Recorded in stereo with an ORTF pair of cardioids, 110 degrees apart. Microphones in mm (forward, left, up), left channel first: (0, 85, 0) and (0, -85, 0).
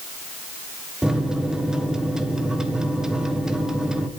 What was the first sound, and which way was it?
A microwave, 5° right.